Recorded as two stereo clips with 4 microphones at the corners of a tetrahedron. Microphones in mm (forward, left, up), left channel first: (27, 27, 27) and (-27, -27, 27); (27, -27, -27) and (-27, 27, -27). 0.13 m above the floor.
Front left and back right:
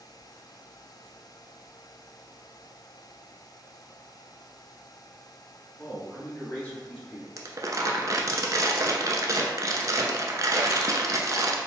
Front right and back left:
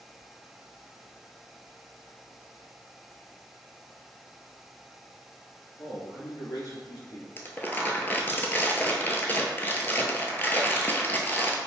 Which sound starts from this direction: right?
Crumpling, at 7.4 s.